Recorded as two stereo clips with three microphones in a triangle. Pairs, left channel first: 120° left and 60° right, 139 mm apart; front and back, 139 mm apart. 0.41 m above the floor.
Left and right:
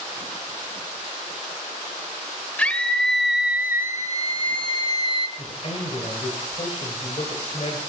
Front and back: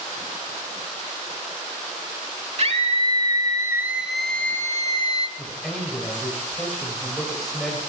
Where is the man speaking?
85° left, 2 m.